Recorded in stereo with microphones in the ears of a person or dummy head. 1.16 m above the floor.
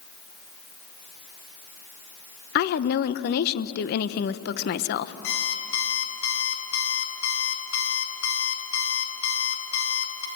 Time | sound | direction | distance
2.5 | a woman speaking | 50° left (ahead or behind) | 0.8 m
5.2 | an alarm clock | 80° left | 4 m